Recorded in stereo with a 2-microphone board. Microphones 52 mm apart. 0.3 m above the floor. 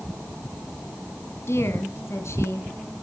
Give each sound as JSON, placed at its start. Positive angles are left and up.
{"t": 1.5, "sound": "a woman speaking", "side_deg": 55, "distance_m": 2.0}